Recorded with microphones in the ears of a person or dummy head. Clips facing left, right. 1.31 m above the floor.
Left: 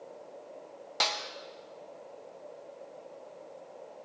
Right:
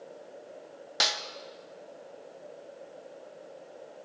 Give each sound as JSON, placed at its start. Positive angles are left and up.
{"t": 1.0, "sound": "a snare drum", "side_deg": -5, "distance_m": 0.6}